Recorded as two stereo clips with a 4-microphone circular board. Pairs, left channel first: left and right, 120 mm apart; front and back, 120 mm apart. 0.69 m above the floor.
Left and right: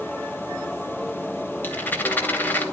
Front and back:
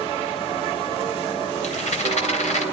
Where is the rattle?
15° left, 2.5 m.